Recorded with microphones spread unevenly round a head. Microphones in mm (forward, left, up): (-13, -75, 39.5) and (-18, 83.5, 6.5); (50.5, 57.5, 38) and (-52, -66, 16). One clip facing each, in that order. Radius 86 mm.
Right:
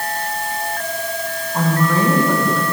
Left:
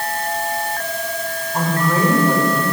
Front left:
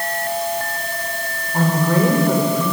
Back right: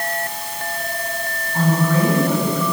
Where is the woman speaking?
10° left, 5 m.